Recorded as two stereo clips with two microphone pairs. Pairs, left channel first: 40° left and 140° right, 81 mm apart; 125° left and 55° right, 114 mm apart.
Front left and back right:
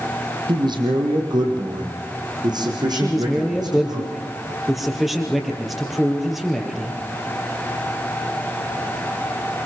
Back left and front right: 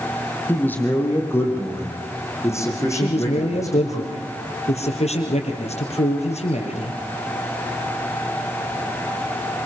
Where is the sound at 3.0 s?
135° left, 4 m.